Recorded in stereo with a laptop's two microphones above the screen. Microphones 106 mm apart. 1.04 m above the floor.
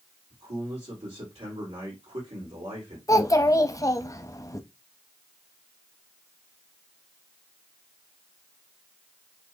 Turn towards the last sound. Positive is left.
turn(degrees=30)  # may be behind; listen again after turning